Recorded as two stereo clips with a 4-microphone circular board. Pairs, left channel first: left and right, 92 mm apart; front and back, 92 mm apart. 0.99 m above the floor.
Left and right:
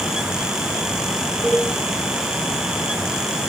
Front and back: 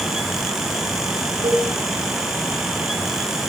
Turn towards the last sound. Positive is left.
turn(degrees=180)